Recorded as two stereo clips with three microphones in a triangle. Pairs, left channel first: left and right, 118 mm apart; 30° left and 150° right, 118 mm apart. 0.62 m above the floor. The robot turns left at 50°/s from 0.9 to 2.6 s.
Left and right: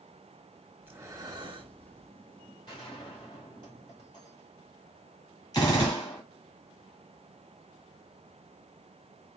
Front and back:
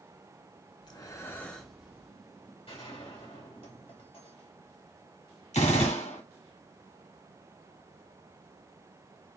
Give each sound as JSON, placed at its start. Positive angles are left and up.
{"t": 0.8, "sound": "breathing", "azimuth_deg": -20, "distance_m": 0.8}
{"t": 2.7, "sound": "a gunshot", "azimuth_deg": 50, "distance_m": 2.5}
{"t": 5.5, "sound": "a gunshot", "azimuth_deg": 35, "distance_m": 2.5}